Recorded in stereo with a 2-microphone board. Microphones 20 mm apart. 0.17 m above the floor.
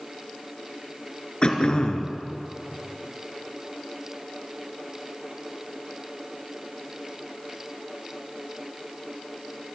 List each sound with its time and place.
1.4 s throat clearing: 40° left (ahead or behind), 3 m